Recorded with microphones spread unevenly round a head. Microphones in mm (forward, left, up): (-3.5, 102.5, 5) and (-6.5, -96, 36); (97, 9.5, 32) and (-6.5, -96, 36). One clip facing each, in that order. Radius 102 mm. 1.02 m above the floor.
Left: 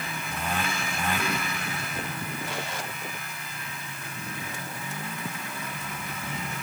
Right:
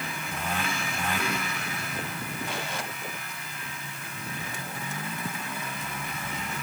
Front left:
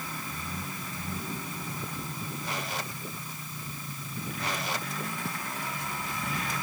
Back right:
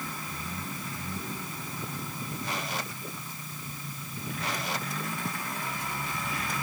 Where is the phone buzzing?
I don't hear a phone buzzing.